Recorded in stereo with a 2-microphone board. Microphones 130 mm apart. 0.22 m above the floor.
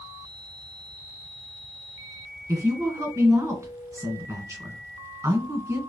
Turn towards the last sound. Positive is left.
turn(degrees=-20)  # may be behind; listen again after turning